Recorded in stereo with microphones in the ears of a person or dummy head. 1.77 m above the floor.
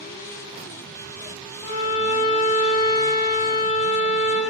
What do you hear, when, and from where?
1.6 s a violin: 30° left (ahead or behind), 0.6 m